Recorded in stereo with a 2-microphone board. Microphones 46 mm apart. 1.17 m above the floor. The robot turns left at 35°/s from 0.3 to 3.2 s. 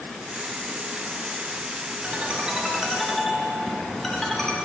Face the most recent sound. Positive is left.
turn(degrees=175)